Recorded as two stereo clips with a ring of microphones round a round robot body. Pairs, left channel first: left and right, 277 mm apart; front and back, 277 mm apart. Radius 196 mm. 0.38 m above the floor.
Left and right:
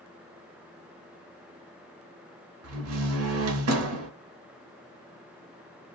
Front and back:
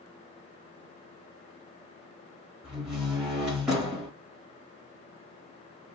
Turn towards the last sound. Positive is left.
turn(degrees=-95)